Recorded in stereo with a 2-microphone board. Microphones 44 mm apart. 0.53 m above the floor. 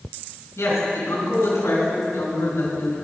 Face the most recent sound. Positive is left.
turn(degrees=60)  # may be behind; listen again after turning